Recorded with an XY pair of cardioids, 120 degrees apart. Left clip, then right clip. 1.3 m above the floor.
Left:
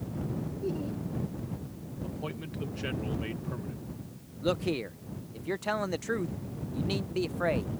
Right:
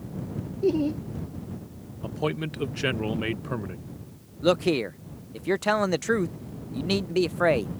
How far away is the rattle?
No rattle in this recording.